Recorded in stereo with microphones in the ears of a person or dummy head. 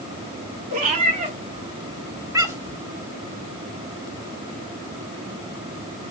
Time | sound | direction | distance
0.7 | a cat meowing | 40° right (ahead or behind) | 1.8 m